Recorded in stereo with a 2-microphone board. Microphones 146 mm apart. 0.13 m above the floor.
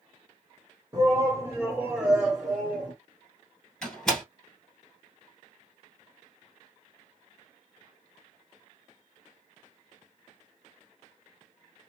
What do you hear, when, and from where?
0.9 s a shout: 30° right (ahead or behind), 1.6 m; by 2.9 s 10° left (ahead or behind), 1.7 m
3.8 s a door slam: 5° left (ahead or behind), 2.5 m